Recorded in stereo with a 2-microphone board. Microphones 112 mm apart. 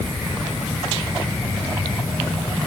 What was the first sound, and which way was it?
Only background noise.